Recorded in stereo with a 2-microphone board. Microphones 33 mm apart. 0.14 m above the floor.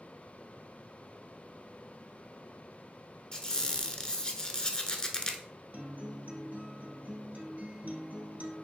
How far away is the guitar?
About 1.3 m.